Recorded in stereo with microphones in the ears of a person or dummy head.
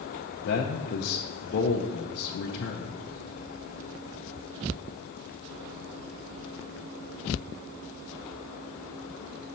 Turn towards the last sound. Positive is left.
turn(degrees=55)  # may be behind; listen again after turning